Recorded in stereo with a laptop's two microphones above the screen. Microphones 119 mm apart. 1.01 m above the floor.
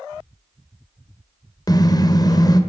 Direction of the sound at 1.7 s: 35° left (ahead or behind).